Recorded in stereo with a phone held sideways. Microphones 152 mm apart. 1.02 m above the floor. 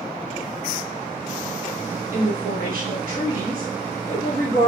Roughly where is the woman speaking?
Right.